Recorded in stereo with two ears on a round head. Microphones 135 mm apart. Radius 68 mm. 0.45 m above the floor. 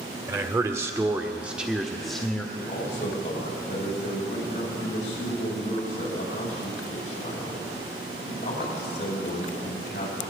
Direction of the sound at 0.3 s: 20° right (ahead or behind).